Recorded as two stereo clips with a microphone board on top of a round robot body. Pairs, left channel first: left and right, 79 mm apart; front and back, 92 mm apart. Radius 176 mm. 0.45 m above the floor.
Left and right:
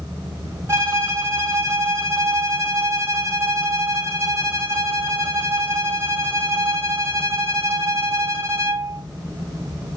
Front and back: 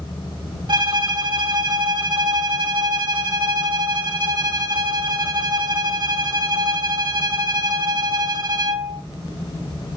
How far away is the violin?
About 3.5 m.